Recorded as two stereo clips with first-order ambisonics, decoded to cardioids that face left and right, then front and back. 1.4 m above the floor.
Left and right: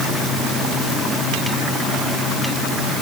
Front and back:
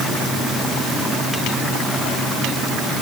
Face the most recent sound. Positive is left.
No sound to turn to.